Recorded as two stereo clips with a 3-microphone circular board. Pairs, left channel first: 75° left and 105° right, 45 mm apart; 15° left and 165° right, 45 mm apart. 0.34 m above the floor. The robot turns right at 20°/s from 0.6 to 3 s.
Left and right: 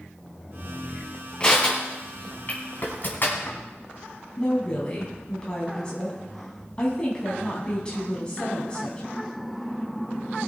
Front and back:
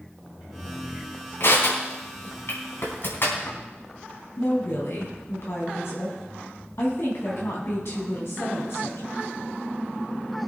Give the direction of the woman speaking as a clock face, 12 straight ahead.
12 o'clock.